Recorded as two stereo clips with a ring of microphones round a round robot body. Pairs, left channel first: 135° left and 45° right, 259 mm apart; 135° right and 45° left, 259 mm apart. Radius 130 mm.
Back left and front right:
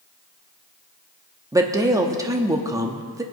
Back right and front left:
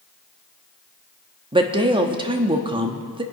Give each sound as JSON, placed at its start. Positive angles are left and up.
{"t": 1.5, "sound": "a woman speaking", "azimuth_deg": 10, "distance_m": 1.1}